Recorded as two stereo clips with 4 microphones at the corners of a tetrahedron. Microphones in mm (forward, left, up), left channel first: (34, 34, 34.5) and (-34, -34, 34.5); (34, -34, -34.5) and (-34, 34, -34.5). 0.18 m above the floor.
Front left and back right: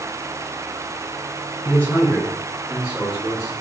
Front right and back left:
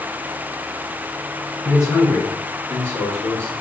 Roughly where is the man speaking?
Ahead.